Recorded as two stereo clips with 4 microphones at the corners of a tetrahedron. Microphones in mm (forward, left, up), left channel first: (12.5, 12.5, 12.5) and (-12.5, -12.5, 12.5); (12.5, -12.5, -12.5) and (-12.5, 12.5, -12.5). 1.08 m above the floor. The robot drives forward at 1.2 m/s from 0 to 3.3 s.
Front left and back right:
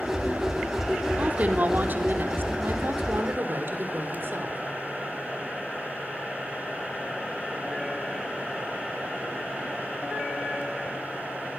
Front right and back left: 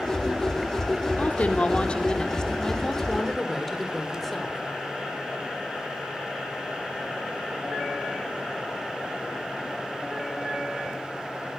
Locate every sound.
1.2 s a woman speaking: 90° right, 3 m; by 4.6 s 130° right, 4 m